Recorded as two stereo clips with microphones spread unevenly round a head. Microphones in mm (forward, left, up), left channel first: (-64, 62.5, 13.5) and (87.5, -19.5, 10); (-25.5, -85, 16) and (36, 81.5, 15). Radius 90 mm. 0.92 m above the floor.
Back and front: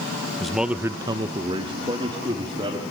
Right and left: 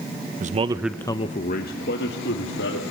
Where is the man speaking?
65° left, 1.0 m; by 2.8 s 95° right, 2.5 m.